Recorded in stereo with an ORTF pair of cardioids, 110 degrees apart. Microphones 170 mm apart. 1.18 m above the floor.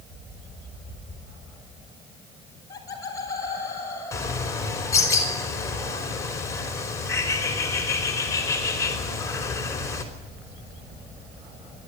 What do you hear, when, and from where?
2.5 s laughter: 20° left, 6 m; by 4.6 s 15° left, 7 m
4.1 s a bird: 20° left, 5 m